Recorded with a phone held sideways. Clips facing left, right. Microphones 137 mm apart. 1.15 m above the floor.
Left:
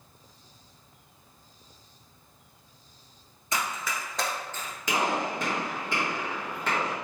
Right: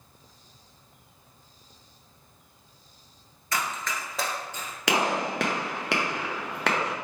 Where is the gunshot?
75° right (ahead or behind), 0.8 m.